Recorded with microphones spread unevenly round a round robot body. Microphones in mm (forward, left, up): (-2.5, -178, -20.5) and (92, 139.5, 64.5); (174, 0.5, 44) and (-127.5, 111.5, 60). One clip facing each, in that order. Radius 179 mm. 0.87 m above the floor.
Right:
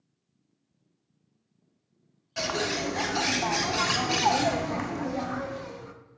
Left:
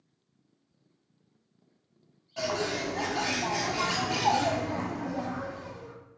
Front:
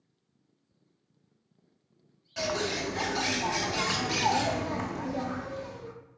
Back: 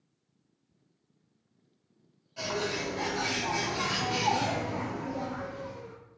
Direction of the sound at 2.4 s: 55° right.